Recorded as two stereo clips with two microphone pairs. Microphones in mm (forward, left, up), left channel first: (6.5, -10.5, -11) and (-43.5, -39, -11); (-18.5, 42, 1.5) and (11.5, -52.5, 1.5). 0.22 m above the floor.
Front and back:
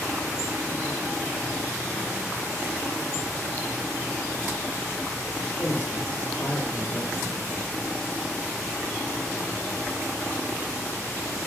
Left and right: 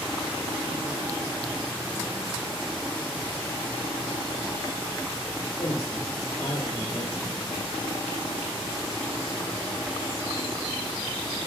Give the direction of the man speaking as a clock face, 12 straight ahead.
10 o'clock.